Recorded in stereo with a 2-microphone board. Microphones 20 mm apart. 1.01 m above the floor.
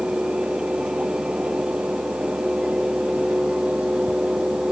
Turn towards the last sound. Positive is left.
No sound to turn to.